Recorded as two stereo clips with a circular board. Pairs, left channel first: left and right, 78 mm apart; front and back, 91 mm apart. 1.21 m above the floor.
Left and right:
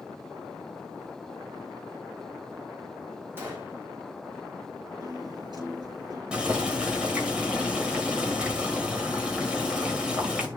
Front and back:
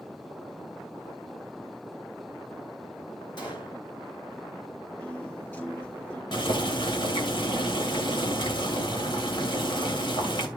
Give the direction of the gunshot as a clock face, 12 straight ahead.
1 o'clock.